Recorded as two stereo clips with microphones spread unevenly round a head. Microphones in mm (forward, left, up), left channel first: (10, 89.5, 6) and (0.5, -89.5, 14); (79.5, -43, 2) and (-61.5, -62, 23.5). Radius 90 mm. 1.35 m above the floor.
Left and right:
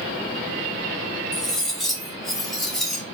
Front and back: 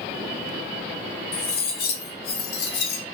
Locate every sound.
1.3 s cutlery clinking: 5° right, 0.8 m